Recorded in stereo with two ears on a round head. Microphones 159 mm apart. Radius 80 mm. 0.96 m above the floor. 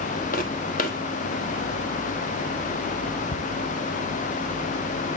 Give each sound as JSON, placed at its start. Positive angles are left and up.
{"t": 0.3, "sound": "footsteps", "side_deg": 55, "distance_m": 1.9}
{"t": 3.3, "sound": "ticking", "side_deg": 45, "distance_m": 0.7}